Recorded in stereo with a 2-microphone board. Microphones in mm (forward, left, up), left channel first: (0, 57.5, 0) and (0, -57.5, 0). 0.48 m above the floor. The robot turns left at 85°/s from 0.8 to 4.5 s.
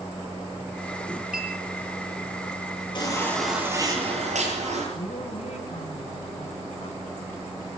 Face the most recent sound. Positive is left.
turn(degrees=70)  # may be behind; listen again after turning